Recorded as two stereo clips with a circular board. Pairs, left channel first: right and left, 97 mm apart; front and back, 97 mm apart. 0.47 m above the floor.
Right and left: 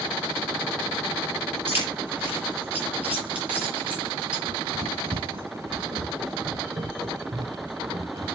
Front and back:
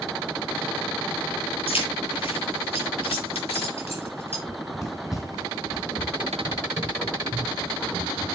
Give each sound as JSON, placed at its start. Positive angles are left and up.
{"t": 1.7, "sound": "keys jangling", "azimuth_deg": 20, "distance_m": 7.5}
{"t": 4.5, "sound": "running footsteps", "azimuth_deg": 65, "distance_m": 2.5}